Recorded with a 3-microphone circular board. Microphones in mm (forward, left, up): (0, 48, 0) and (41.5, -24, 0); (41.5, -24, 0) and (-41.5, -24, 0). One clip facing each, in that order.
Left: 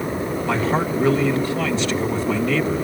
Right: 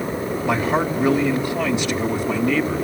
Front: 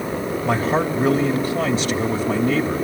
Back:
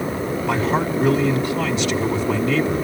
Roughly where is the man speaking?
Ahead.